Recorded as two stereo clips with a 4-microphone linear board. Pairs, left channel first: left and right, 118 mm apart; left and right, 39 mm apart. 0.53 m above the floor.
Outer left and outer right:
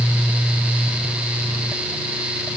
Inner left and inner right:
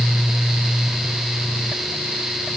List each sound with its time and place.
Only background noise.